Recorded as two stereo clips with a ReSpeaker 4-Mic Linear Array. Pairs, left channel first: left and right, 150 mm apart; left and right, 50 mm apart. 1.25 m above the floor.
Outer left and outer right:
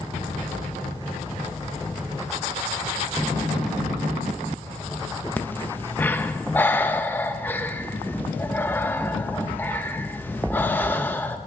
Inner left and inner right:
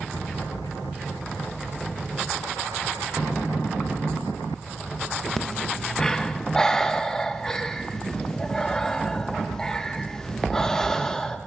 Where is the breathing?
15° left (ahead or behind), 0.9 m.